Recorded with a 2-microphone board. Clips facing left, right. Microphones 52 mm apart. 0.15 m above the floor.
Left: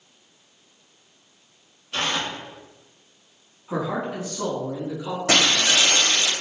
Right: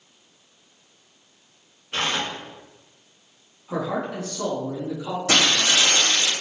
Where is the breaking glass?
30° left (ahead or behind), 1.5 m.